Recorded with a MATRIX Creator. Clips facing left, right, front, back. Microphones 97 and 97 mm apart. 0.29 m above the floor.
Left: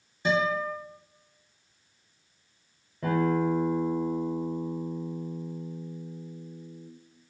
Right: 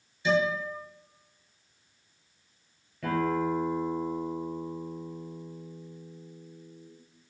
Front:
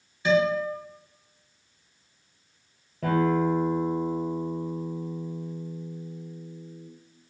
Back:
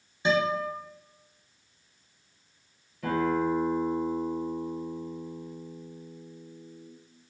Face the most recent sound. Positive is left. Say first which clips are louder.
# left 2 dB, front 3 dB
turn(degrees=30)